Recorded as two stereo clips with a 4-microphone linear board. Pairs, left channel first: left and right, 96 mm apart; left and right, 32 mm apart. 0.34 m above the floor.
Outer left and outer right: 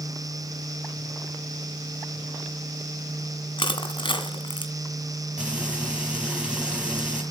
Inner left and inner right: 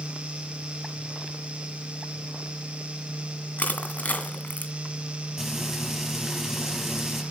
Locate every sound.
3.6 s crushing: 60° left (ahead or behind), 2.0 m
5.4 s frying: 10° right (ahead or behind), 4.5 m